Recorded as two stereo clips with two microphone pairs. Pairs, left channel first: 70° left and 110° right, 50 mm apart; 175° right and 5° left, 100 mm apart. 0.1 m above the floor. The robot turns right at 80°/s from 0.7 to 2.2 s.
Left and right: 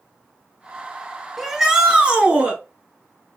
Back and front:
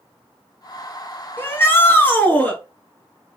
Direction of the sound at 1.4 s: 160° left.